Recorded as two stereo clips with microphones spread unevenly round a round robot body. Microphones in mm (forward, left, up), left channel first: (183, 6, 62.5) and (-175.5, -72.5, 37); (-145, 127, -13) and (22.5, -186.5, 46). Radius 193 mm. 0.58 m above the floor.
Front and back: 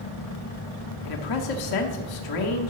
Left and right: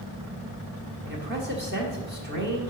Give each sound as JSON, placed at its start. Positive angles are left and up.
{"t": 1.1, "sound": "a man speaking", "azimuth_deg": 5, "distance_m": 1.3}